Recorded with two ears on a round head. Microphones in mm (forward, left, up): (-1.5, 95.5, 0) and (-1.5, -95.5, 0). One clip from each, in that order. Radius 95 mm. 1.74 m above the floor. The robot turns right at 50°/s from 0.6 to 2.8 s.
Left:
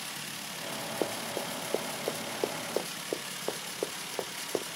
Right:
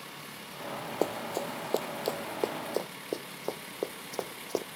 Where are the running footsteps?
60° right (ahead or behind); by 4.7 s 5° right (ahead or behind).